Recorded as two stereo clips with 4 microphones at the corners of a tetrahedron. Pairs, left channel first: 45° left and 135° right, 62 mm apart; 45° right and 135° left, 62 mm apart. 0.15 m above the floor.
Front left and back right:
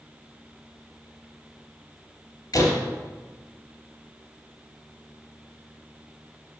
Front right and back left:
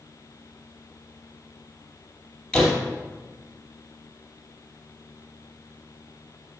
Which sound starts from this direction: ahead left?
A door slam, at 2.5 s.